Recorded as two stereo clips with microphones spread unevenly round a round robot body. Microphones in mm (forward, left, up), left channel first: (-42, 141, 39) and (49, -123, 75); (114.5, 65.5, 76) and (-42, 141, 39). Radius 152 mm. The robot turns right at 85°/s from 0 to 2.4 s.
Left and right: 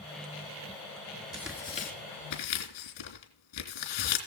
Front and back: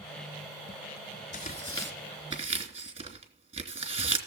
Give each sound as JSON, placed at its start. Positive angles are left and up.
{"t": 1.3, "sound": "tearing paper", "azimuth_deg": 5, "distance_m": 3.0}